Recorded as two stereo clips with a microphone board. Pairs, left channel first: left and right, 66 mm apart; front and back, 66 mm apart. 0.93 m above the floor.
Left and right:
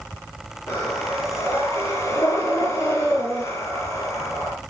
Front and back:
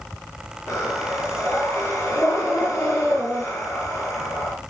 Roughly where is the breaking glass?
I don't hear breaking glass.